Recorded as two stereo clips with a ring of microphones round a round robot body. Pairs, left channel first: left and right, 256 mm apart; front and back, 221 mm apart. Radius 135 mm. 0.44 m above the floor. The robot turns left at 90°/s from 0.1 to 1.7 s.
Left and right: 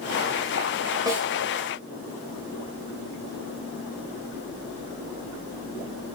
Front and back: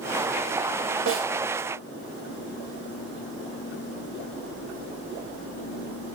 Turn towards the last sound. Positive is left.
turn(degrees=140)